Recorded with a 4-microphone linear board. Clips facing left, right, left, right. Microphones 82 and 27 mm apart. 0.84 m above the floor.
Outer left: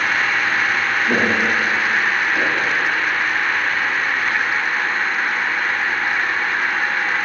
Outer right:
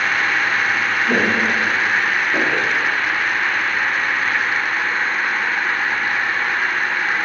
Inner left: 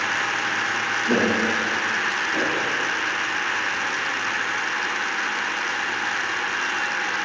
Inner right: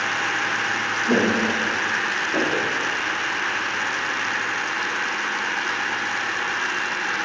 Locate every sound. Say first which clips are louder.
1.1 s footsteps: even, inner right 1 dB; 10° left (ahead or behind), 1.3 m; by 2.7 s 45° right (ahead or behind), 1.2 m